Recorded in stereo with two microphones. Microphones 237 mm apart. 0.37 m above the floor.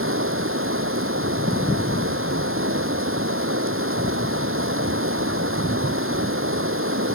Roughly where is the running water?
Right.